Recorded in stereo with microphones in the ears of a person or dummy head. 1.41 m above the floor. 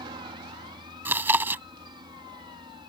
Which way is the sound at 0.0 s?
25° right (ahead or behind).